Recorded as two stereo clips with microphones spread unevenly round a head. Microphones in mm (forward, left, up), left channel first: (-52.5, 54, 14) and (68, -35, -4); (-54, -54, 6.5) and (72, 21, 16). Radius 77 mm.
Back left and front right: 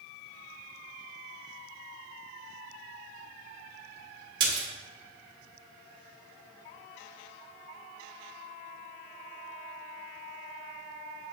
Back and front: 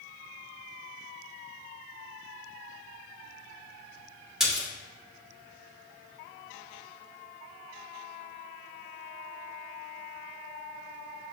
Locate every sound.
4.4 s a splash: 50° right, 1.2 m